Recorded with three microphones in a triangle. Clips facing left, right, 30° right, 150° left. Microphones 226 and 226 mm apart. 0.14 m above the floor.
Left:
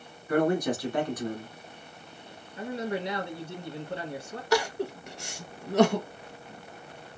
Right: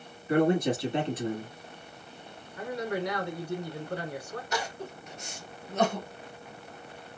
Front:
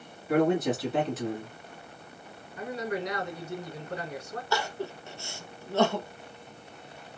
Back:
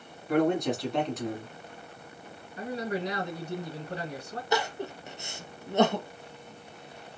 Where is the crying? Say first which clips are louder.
Left 11 dB, back 3 dB; 85° left, 0.5 m.